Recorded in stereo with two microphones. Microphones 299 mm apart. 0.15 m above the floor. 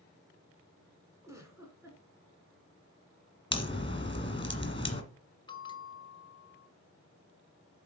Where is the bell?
15° left (ahead or behind), 0.5 m.